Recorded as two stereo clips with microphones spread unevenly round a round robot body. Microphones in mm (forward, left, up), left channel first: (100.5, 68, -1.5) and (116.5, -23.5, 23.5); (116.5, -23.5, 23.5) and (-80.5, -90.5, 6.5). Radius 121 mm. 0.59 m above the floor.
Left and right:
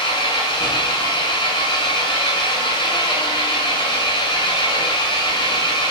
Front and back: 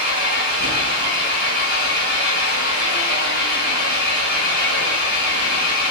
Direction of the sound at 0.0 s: 70° left.